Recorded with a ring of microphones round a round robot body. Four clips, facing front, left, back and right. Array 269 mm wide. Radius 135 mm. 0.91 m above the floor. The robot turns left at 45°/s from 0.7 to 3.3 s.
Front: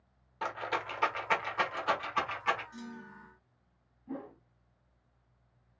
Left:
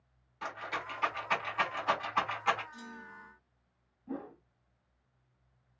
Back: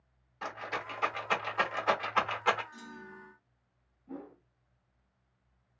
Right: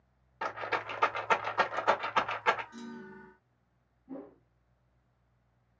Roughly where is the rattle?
Ahead right.